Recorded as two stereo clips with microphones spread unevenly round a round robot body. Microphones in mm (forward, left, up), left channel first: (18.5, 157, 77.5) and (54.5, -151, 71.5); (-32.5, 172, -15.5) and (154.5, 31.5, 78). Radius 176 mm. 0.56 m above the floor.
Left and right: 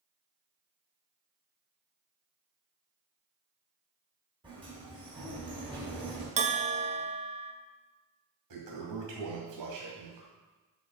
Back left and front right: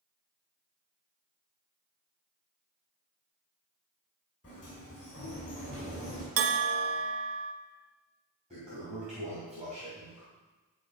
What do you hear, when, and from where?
4.4 s a sliding door: 160° right, 3.5 m
6.4 s a bell: 15° right, 0.7 m
8.5 s a toilet flushing: 110° right, 2.5 m